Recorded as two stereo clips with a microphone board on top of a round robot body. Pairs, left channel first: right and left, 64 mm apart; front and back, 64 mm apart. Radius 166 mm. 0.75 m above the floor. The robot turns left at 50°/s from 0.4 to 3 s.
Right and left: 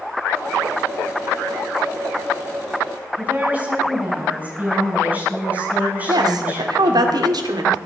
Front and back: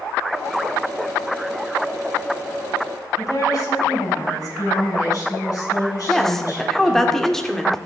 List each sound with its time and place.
3.2 s a woman speaking: 25° left, 6.5 m
6.1 s a woman speaking: 85° left, 2 m